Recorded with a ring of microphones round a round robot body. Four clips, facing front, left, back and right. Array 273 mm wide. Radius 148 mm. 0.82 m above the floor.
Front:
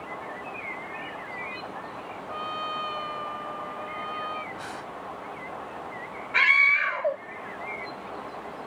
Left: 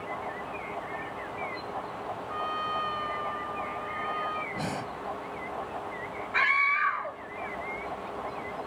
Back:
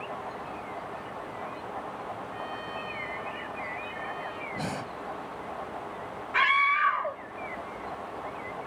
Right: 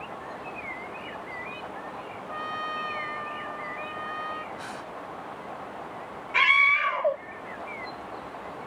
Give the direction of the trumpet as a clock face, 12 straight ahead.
1 o'clock.